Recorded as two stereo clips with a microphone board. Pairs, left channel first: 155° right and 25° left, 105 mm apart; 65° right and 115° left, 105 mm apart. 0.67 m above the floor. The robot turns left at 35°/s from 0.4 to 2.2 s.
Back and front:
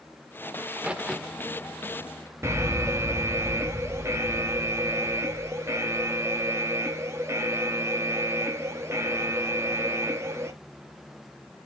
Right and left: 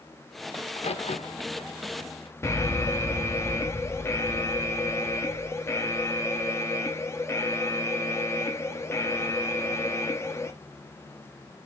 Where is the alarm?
25° right, 1.0 m.